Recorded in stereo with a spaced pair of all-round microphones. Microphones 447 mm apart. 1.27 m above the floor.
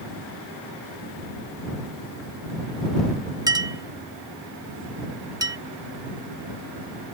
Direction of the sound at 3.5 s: 10° right (ahead or behind).